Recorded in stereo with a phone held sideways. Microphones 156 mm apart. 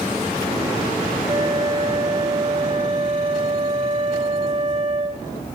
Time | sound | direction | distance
1.3 | a flute | 50° right (ahead or behind) | 1.5 m